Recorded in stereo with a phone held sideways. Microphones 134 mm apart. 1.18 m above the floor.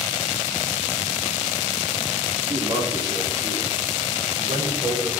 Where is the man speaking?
30° right (ahead or behind), 2.5 m; by 5.1 s 35° right (ahead or behind), 7 m.